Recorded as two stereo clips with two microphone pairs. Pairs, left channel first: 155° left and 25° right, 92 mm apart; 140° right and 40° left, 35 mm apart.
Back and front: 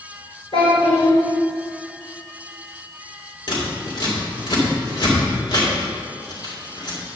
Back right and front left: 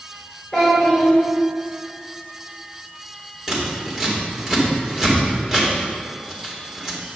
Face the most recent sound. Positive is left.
turn(degrees=125)